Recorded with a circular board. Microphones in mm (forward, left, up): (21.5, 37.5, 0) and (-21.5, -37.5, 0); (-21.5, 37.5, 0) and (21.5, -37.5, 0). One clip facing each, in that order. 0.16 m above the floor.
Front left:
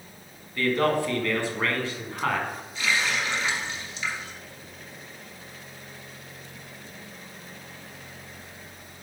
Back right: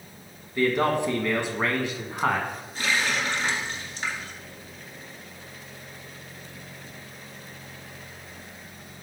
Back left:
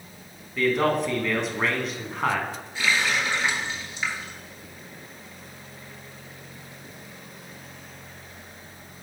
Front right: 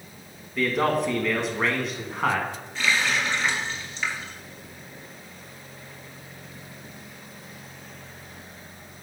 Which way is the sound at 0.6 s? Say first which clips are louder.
Back right 1 dB, back left 1 dB; 145° right.